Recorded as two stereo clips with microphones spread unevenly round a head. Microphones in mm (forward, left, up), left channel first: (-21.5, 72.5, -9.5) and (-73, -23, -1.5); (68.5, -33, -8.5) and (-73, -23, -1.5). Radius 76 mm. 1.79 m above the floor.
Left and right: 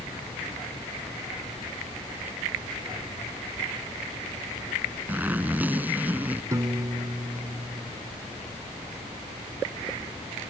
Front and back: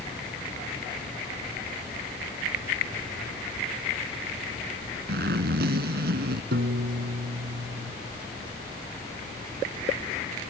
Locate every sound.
5.1 s a zipper: 170° left
6.5 s a piano: straight behind